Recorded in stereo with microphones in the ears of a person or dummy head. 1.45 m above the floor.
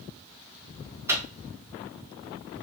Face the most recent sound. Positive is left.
turn(degrees=-15)  # may be behind; listen again after turning